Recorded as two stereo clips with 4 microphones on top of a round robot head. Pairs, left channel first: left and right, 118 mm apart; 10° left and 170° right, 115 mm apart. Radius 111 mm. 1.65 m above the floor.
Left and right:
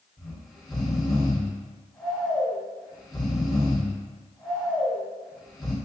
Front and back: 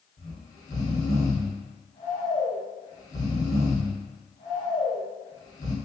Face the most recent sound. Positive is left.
turn(degrees=-5)